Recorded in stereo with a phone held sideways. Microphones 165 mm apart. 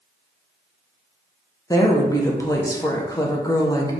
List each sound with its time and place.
1.7 s a woman speaking: 20° left (ahead or behind), 1.1 m